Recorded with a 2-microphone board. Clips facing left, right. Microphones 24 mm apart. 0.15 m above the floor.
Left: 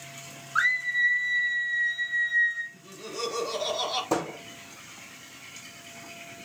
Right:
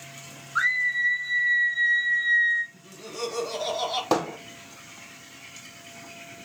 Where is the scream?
10° left (ahead or behind), 1.6 m; by 2.6 s 25° right (ahead or behind), 1.7 m.